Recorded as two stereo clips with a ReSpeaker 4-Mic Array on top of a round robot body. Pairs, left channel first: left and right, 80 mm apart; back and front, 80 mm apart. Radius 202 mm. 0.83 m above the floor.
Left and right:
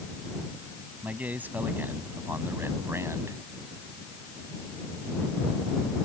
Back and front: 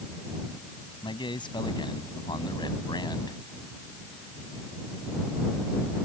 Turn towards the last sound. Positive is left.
turn(degrees=-145)